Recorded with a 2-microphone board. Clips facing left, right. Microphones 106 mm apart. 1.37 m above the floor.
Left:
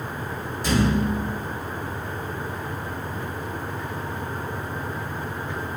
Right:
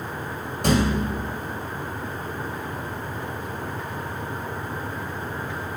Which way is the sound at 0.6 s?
75° right (ahead or behind).